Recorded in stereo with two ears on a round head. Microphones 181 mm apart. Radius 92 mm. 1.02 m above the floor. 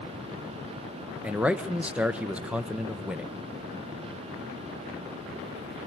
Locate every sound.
1.2 s a man speaking: 5° right (ahead or behind), 0.7 m